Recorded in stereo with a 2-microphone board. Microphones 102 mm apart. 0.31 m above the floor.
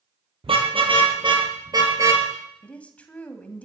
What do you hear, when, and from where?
0.4 s a car horn: 65° right (ahead or behind), 4.5 m; by 2.3 s 25° right (ahead or behind), 3 m
2.6 s a woman speaking: 15° left (ahead or behind), 2.0 m